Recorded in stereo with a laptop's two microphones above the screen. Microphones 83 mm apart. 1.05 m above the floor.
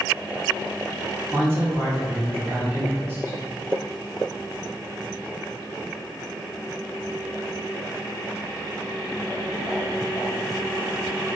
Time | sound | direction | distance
1.3 | a man speaking | 30° right (ahead or behind) | 0.8 m